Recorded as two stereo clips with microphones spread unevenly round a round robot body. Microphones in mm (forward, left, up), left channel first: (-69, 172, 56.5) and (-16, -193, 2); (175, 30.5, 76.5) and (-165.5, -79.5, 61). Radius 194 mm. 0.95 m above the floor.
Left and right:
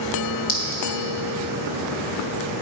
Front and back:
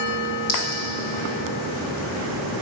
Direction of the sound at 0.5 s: 55° left.